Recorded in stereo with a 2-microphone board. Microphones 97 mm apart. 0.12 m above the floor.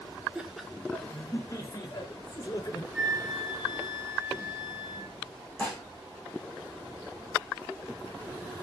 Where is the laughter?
10° right (ahead or behind), 1.6 m; by 2.8 s 40° left (ahead or behind), 3 m.